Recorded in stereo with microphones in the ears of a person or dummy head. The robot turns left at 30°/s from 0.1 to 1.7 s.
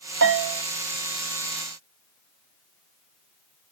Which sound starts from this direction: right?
A bell, at 0.2 s.